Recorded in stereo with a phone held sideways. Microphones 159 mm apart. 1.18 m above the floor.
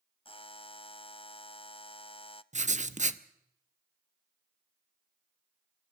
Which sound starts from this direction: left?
A buzzer, at 0.2 s.